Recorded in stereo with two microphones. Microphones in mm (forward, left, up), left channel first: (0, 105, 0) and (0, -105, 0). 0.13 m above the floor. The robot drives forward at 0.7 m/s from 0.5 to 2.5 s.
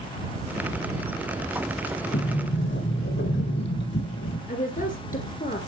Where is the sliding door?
65° left (ahead or behind), 3.5 m; by 4.4 s 60° left (ahead or behind), 3.5 m.